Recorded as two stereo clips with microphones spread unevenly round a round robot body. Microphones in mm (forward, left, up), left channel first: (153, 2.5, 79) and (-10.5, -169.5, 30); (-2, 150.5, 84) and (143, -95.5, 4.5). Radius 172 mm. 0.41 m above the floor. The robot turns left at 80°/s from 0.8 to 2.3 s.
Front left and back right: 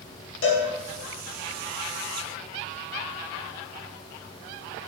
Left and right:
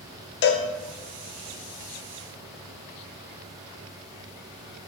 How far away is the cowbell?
About 0.6 m.